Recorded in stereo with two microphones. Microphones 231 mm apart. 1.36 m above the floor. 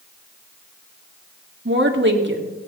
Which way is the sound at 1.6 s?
55° right (ahead or behind).